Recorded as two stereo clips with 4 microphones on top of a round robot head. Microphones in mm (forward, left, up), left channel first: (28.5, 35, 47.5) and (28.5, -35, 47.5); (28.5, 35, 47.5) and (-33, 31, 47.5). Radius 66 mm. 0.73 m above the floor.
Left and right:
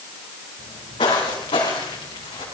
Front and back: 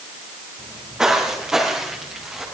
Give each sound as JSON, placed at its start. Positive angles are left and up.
{"t": 0.6, "sound": "footsteps", "azimuth_deg": 110, "distance_m": 3.0}